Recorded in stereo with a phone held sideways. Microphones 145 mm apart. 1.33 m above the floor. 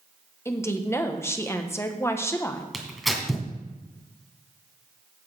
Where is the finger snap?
No finger snap in this recording.